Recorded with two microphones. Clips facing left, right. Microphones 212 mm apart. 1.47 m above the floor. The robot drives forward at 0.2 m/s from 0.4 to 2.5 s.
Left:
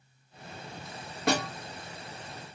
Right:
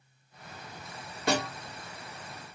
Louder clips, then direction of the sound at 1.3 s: Left 1 dB; 60° left (ahead or behind).